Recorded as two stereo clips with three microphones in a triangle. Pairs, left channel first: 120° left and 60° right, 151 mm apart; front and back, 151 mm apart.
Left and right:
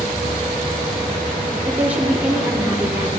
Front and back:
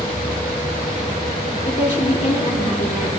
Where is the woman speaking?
15° left, 3 m.